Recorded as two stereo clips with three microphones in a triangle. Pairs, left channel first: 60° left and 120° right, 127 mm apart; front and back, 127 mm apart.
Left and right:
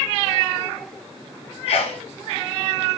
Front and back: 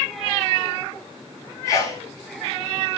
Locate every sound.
1.7 s a sneeze: 55° left, 2.0 m